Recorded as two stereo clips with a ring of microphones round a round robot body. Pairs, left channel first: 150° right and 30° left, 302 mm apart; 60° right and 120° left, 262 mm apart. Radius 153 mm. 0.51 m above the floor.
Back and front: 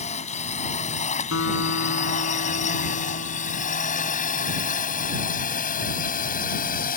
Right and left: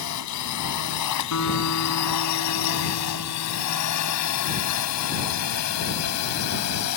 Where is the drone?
80° right; by 7.0 s 90° right.